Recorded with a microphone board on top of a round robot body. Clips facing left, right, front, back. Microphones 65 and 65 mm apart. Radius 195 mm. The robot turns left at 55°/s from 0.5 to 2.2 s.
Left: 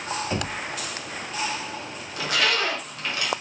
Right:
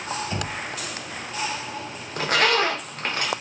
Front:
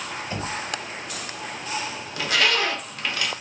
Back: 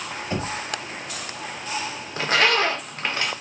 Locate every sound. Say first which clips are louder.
0.3 s knocking: left 1 dB, back 4 dB; 140° left, 1.6 m; by 0.5 s 135° left, 1.6 m
2.2 s a zipper: right 4 dB, back 3 dB; 125° right, 0.9 m